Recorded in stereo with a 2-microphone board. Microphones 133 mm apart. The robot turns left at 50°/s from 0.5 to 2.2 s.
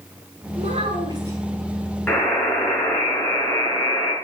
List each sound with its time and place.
0.6 s a child speaking: 115° right, 5.5 m; by 1.4 s 160° right, 5.5 m
2.1 s a buzzer: 10° left (ahead or behind), 4 m; by 4.1 s 15° left (ahead or behind), 4 m